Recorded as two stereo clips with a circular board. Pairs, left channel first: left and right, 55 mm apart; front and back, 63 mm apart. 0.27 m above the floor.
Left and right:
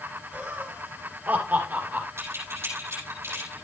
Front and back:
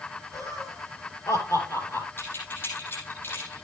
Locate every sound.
0.3 s laughter: 25° right, 7 m; by 2.1 s 40° right, 5.5 m
2.2 s keys jangling: 55° right, 6.5 m